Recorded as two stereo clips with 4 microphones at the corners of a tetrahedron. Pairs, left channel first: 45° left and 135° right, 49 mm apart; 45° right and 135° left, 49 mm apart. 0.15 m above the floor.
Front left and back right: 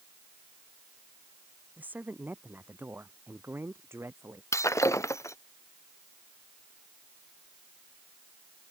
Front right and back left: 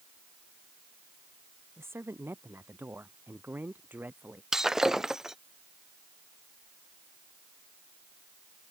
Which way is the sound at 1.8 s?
170° left.